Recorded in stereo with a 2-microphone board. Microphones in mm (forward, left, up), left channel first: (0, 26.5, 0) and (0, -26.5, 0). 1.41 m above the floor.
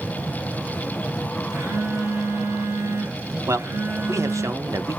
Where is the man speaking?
75° right (ahead or behind), 1.0 m.